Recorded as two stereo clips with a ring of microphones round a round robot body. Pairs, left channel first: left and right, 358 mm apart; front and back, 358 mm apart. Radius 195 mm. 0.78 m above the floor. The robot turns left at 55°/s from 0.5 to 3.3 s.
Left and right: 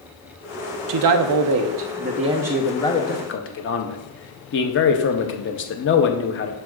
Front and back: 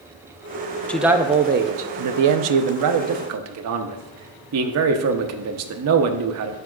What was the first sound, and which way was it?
A man speaking, 85° right.